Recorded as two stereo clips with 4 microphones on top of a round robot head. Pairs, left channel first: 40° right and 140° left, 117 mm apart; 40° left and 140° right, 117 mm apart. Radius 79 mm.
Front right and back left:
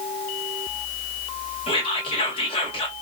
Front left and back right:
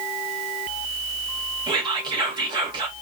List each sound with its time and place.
1.7 s whispering: 85° right, 1.4 m